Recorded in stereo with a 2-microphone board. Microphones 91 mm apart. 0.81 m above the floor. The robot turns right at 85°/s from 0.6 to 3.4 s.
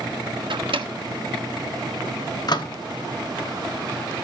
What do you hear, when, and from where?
0.5 s a microwave: 60° right (ahead or behind), 1.4 m; by 2.7 s 60° left (ahead or behind), 1.4 m